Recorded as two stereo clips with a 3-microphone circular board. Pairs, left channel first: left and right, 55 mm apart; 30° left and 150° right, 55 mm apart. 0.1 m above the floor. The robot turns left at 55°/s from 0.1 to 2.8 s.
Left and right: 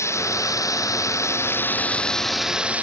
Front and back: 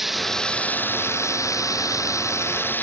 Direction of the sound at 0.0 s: 125° left.